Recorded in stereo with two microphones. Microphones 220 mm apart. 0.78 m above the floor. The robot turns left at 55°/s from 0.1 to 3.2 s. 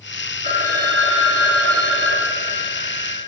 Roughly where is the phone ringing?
Ahead right.